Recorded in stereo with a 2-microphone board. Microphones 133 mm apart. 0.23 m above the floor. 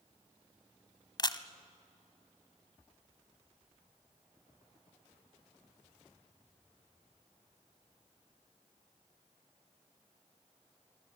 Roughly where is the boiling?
No boiling in this recording.